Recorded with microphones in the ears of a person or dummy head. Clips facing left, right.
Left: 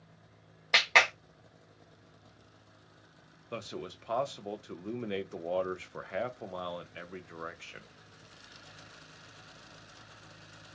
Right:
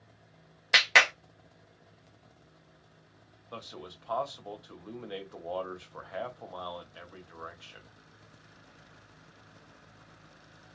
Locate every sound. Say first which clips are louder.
0.7 s a clap: even; 10° right (ahead or behind), 0.5 m
3.5 s a man speaking: left 5 dB; 35° left (ahead or behind), 0.6 m